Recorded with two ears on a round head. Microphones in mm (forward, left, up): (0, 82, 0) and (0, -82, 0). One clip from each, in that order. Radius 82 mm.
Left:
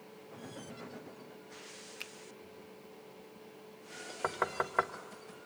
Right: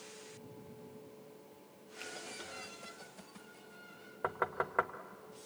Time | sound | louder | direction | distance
2.0 | a finger snap | even | 40° left (ahead or behind) | 1.0 m
4.2 | knocking | left 2 dB | 15° left (ahead or behind) | 0.9 m